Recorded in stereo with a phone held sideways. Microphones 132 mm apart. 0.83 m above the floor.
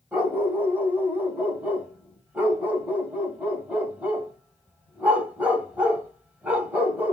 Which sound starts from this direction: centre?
A dog barking, at 0.1 s.